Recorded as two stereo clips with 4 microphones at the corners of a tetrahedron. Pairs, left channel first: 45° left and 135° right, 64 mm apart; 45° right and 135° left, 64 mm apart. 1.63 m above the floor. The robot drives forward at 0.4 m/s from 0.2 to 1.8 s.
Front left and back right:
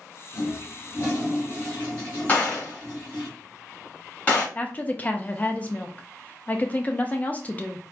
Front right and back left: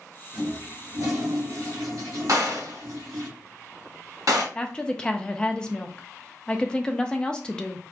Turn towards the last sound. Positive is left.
turn(degrees=15)